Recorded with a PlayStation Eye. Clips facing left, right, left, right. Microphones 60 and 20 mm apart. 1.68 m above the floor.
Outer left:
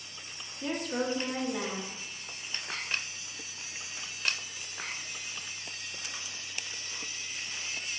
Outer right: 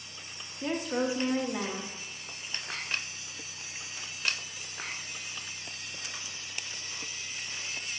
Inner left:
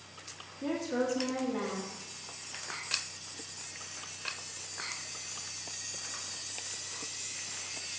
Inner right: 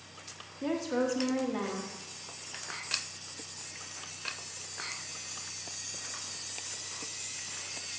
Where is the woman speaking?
15° right (ahead or behind), 1.5 m.